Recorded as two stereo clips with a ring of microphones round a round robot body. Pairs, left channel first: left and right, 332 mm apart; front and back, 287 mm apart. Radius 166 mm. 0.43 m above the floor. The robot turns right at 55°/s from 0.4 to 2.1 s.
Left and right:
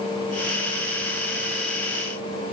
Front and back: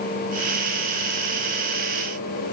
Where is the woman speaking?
I don't hear a woman speaking.